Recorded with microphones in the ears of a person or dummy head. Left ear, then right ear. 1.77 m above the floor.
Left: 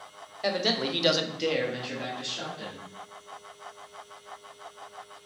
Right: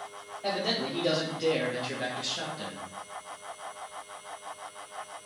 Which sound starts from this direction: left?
A man speaking, at 0.4 s.